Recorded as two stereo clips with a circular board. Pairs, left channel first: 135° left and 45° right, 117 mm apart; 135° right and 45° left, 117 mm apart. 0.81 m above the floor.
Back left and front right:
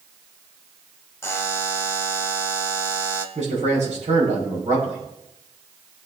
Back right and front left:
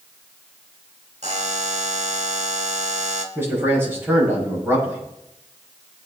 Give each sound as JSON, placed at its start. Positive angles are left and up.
{"t": 1.2, "sound": "a buzzer", "azimuth_deg": 65, "distance_m": 1.3}
{"t": 3.4, "sound": "a man speaking", "azimuth_deg": -25, "distance_m": 7.0}